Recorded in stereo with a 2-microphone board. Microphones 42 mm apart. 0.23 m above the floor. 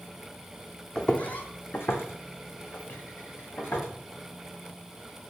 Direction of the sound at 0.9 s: 15° left (ahead or behind).